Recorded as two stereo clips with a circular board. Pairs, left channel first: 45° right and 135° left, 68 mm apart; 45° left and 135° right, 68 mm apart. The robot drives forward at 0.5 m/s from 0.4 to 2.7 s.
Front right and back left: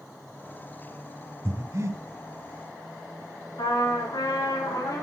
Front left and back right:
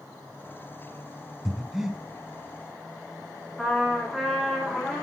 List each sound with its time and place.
1.4 s breathing: 135° left, 1.5 m; by 2.0 s 145° left, 1.6 m
3.6 s a trumpet: 45° right, 3.5 m